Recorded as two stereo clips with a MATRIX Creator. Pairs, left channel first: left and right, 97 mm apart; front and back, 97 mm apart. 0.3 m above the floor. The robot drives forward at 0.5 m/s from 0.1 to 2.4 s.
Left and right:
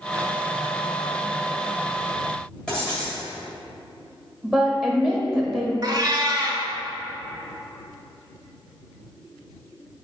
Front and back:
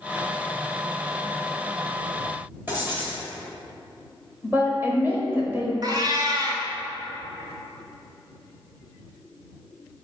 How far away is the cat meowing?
About 0.7 m.